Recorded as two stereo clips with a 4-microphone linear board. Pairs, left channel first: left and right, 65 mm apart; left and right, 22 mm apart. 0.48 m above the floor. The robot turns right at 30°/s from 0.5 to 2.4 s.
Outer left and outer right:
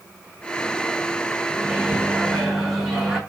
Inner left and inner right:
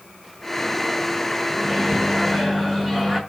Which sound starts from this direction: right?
A microwave, at 1.5 s.